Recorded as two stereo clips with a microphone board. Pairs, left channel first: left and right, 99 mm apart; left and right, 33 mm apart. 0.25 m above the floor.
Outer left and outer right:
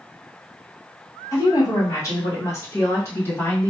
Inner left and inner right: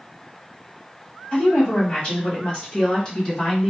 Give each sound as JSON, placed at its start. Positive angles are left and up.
{"t": 1.3, "sound": "a woman speaking", "side_deg": 35, "distance_m": 1.6}